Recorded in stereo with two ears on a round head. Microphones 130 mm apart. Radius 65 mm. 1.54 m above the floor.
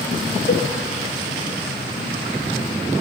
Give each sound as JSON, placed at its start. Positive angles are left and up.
{"t": 0.5, "sound": "a cowbell", "side_deg": 75, "distance_m": 2.0}